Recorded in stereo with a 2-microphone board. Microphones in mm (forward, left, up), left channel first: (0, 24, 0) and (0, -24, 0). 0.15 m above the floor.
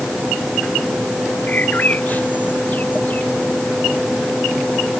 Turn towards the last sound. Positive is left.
turn(degrees=35)  # may be behind; listen again after turning